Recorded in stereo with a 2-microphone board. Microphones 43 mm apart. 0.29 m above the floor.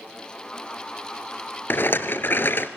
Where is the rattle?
60° left (ahead or behind), 1.0 m.